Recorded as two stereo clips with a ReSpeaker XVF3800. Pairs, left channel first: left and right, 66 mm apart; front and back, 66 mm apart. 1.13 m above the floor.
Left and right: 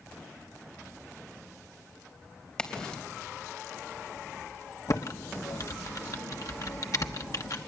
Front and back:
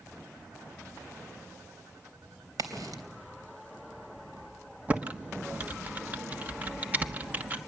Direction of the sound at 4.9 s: 115° left.